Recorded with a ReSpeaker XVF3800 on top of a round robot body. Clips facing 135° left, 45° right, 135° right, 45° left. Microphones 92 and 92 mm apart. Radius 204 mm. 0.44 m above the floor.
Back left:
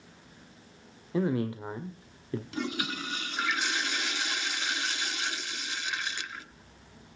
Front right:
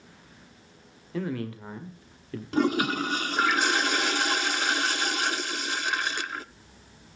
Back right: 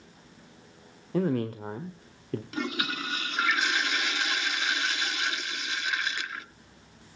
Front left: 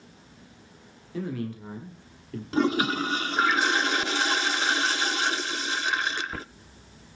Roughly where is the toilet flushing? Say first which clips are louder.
Front right 13 dB, front left 11 dB; ahead.